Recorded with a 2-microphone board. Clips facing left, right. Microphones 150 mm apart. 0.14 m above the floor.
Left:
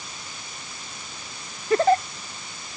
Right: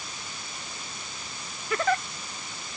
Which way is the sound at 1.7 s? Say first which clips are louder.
Left 8 dB; 35° left (ahead or behind).